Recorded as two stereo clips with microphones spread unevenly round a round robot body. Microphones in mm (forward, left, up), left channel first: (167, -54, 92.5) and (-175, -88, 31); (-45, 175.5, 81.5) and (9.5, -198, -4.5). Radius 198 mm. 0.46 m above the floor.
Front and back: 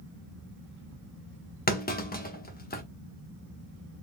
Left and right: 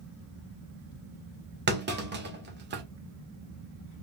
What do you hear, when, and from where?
1.7 s a clunk: 60° right, 1.0 m